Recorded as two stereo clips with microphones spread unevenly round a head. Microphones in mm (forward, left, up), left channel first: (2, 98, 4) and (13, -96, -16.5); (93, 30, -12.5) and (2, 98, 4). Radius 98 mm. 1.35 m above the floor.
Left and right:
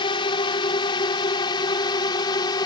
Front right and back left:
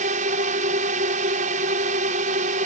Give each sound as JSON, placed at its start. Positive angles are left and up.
{"t": 0.0, "sound": "a drone", "azimuth_deg": 160}